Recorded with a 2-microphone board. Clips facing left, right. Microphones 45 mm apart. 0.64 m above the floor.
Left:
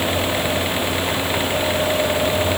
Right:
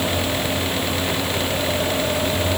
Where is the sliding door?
I don't hear a sliding door.